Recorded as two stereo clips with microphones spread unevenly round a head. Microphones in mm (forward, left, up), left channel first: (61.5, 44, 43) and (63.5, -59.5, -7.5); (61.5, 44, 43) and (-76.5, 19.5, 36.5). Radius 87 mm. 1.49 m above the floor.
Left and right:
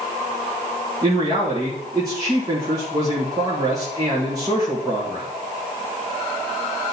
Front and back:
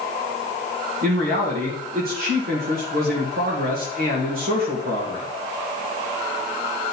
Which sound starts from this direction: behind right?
A man speaking, at 1.0 s.